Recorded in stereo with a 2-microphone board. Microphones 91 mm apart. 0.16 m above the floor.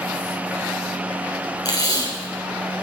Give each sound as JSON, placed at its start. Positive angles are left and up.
{"t": 1.6, "sound": "tape being pulled", "side_deg": 45, "distance_m": 3.0}